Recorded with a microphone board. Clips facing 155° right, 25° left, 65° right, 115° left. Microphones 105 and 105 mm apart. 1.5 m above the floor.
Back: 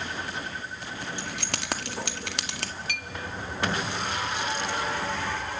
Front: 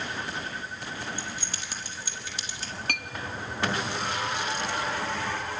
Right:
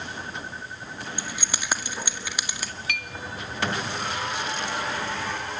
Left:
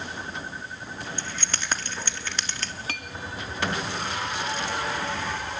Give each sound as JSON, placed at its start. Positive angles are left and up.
{"t": 1.2, "sound": "keys jangling", "azimuth_deg": -145, "distance_m": 1.9}
{"t": 2.9, "sound": "a clink", "azimuth_deg": 60, "distance_m": 1.7}